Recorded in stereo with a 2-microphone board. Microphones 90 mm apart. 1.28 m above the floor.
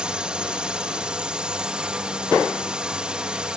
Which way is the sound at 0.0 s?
10° right (ahead or behind).